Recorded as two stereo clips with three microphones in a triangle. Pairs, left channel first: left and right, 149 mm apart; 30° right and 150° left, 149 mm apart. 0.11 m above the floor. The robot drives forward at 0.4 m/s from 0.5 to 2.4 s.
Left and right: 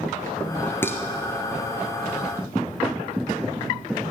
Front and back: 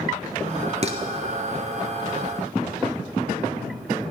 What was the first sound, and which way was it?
Dishes clattering, 160° left.